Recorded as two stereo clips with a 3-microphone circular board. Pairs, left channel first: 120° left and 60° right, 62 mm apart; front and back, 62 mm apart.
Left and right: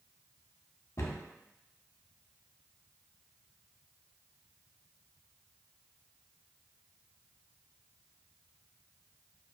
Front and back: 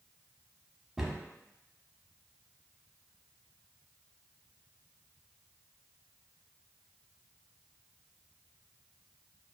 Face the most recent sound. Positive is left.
turn(degrees=105)